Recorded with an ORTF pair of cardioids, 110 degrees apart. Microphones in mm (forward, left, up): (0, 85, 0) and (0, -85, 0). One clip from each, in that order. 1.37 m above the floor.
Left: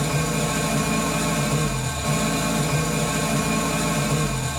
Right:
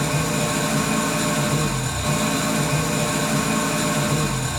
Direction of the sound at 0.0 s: 25° right.